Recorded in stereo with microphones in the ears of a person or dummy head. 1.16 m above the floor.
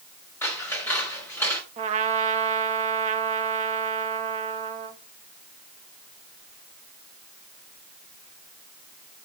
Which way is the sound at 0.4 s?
15° left (ahead or behind).